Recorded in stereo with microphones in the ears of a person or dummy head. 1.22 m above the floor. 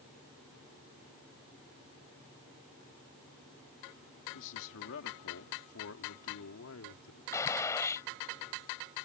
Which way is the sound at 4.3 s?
65° left (ahead or behind).